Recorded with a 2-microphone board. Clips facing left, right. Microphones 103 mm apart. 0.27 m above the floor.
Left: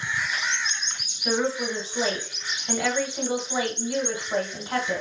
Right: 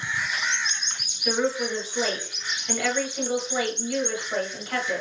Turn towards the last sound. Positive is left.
turn(degrees=20)  # may be behind; listen again after turning